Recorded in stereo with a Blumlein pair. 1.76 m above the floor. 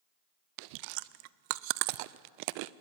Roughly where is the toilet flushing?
I don't hear a toilet flushing.